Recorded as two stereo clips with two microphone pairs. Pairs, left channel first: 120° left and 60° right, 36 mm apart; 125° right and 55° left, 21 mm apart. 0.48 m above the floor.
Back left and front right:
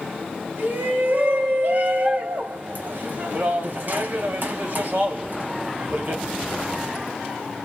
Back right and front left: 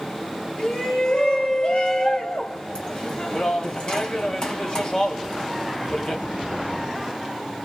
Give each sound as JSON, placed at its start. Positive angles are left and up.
{"t": 0.6, "sound": "a shout", "azimuth_deg": -75, "distance_m": 1.8}